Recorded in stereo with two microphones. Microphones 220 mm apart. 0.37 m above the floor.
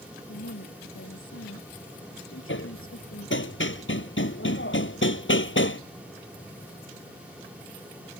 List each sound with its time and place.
0.3 s a woman speaking: 75° left (ahead or behind)
2.5 s hammering: 60° left (ahead or behind)